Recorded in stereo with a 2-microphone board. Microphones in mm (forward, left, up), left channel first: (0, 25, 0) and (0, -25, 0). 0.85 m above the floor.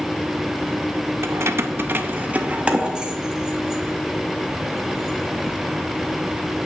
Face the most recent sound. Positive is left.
turn(degrees=-5)  # may be behind; listen again after turning